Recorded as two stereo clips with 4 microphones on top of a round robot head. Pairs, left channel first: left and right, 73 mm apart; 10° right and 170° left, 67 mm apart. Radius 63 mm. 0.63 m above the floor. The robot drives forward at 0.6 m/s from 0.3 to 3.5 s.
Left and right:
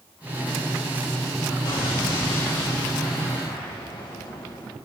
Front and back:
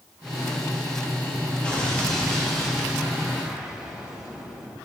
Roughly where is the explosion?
Left.